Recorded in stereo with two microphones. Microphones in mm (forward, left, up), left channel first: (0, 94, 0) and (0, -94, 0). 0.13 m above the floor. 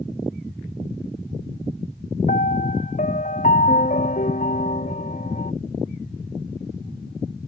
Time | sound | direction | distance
2.3 | a piano | 45° left (ahead or behind) | ?